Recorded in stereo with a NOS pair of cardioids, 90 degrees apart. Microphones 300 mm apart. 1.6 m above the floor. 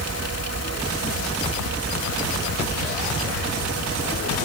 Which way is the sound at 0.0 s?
60° right.